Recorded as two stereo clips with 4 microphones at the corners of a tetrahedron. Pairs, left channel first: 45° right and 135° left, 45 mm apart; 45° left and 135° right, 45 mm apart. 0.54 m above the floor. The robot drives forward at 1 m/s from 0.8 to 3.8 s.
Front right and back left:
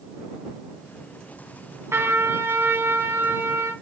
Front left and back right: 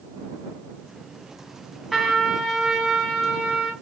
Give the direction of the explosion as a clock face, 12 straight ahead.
I don't hear an explosion.